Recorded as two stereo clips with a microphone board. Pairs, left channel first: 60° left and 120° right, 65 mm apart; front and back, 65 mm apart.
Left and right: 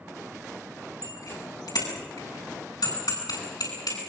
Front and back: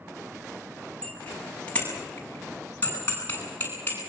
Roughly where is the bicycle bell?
Left.